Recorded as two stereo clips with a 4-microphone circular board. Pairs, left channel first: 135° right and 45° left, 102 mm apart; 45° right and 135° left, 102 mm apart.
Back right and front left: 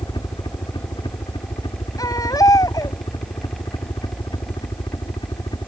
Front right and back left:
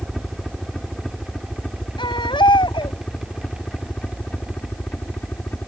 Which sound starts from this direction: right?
A baby crying, at 2.0 s.